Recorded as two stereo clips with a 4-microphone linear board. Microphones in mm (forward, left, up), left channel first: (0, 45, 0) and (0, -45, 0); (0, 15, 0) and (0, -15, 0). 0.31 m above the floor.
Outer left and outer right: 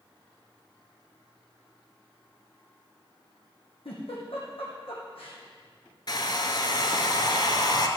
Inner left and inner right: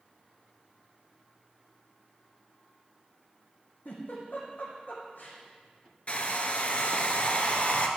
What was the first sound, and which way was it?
A giggle, 85° left.